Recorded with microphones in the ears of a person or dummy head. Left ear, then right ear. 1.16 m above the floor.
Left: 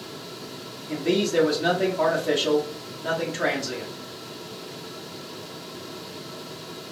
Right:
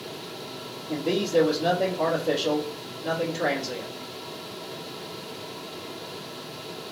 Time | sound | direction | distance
0.9 | a man speaking | 65° left (ahead or behind) | 1.2 m